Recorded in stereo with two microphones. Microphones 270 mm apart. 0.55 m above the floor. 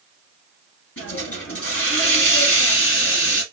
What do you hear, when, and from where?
1.0 s a hiss: 55° left (ahead or behind), 2.5 m